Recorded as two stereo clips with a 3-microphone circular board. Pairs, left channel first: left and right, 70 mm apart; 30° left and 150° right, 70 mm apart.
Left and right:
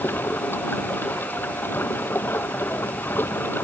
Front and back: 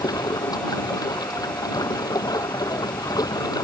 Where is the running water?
30° left.